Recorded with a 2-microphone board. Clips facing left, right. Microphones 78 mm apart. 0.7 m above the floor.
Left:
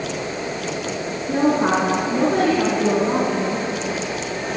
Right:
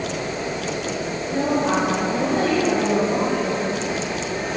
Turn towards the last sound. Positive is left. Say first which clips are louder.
# left 3 dB
turn(degrees=85)